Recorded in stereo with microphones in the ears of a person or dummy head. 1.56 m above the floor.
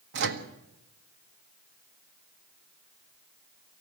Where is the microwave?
65° right (ahead or behind), 1.5 m.